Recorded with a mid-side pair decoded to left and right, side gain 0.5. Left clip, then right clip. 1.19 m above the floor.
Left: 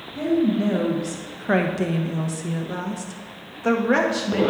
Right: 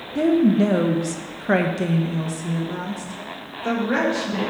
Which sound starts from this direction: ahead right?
A woman speaking, at 0.1 s.